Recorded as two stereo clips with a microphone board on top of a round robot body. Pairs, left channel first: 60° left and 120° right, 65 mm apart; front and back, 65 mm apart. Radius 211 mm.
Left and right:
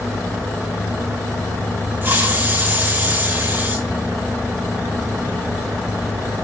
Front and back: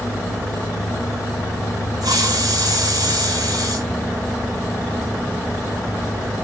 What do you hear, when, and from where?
2.0 s a hiss: straight behind, 4 m